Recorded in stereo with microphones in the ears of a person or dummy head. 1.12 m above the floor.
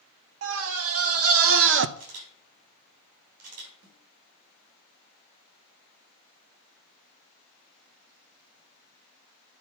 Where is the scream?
75° right (ahead or behind), 1.5 m; by 1.9 s 60° right (ahead or behind), 0.6 m.